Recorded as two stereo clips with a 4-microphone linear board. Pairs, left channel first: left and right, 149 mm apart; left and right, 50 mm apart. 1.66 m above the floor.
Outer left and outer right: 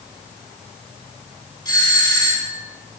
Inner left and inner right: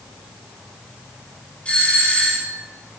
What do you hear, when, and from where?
1.6 s a doorbell: 30° left (ahead or behind), 6.5 m